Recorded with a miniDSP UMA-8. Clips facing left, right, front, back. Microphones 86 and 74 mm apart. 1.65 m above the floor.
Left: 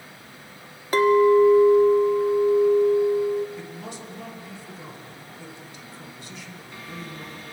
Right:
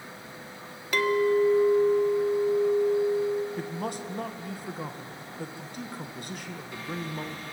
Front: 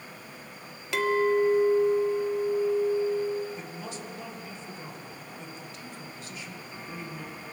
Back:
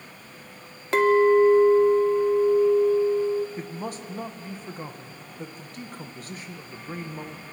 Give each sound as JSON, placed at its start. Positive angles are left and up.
{"t": 0.9, "sound": "a clink", "azimuth_deg": 140, "distance_m": 0.9}
{"t": 3.6, "sound": "a man speaking", "azimuth_deg": -135, "distance_m": 1.9}